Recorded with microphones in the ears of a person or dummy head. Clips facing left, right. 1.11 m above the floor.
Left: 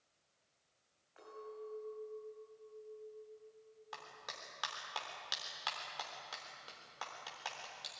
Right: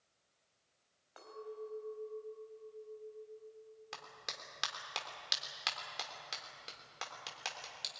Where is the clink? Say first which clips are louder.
Right 3 dB; 80° right, 4.5 m.